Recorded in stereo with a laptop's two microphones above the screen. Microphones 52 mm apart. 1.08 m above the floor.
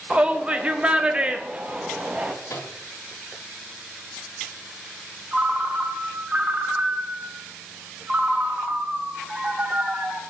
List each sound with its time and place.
0.1 s a shout: 25° right (ahead or behind), 0.5 m
2.5 s a microwave: 70° left (ahead or behind), 1.0 m
5.3 s a ringtone: 25° right (ahead or behind), 2 m